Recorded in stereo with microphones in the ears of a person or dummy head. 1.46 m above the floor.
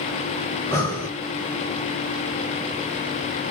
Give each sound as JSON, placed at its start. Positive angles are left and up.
{"t": 0.5, "sound": "breathing", "side_deg": 20, "distance_m": 1.0}